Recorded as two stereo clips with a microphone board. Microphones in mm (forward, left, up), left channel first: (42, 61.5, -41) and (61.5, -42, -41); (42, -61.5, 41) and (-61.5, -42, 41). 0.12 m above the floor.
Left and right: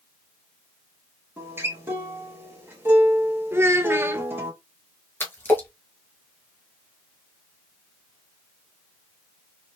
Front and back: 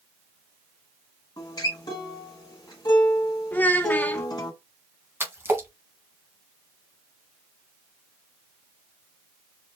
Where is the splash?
135° left, 1.3 m.